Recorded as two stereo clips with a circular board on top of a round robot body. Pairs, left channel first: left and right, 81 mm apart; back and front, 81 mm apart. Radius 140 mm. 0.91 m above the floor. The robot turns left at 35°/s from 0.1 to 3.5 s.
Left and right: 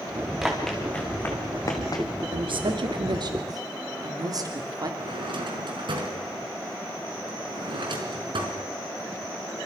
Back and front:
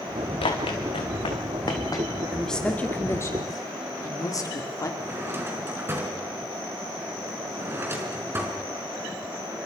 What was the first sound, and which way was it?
Running footsteps, straight behind.